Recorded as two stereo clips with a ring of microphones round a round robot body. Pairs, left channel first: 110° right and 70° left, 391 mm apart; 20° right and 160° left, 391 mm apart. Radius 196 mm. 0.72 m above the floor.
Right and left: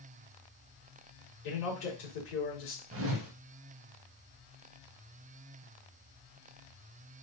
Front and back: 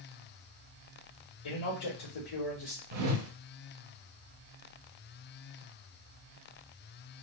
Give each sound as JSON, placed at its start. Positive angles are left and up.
{"t": 1.4, "sound": "a man speaking", "azimuth_deg": -70, "distance_m": 2.5}
{"t": 2.9, "sound": "a whoosh", "azimuth_deg": 120, "distance_m": 0.7}